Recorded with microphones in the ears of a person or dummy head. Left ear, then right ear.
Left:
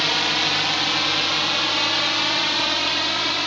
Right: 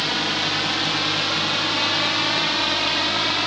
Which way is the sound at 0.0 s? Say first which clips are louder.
Left 2 dB; 25° left (ahead or behind).